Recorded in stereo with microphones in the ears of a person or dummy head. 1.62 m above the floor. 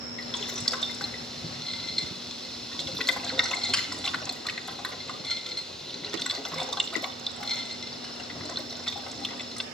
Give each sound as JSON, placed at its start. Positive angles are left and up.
{"t": 0.2, "sound": "boiling", "side_deg": 5, "distance_m": 0.9}